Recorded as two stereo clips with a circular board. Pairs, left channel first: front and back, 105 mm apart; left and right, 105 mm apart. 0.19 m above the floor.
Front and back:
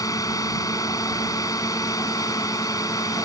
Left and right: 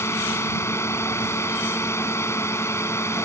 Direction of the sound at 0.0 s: 40° left.